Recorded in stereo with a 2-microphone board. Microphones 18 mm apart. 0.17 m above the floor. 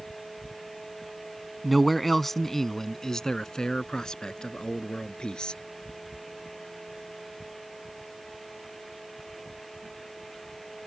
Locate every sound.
1.6 s a man speaking: centre (ahead or behind); by 5.6 s 60° left (ahead or behind)